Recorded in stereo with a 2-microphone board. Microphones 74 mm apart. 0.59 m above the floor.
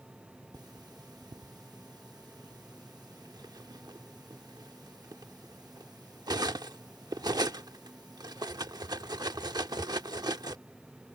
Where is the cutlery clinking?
65° right (ahead or behind).